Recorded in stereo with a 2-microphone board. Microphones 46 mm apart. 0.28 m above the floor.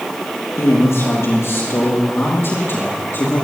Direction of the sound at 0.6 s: 75° left (ahead or behind).